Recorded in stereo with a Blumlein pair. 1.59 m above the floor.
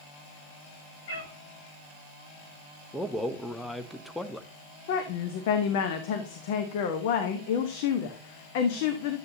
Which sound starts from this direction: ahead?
A man speaking, at 2.9 s.